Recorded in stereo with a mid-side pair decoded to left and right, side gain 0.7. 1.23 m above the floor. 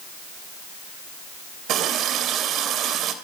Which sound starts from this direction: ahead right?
A running tap, at 1.7 s.